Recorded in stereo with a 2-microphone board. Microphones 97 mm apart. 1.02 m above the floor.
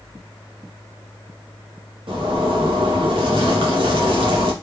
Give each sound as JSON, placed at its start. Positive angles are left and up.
{"t": 2.1, "sound": "a zipper", "side_deg": -60, "distance_m": 1.4}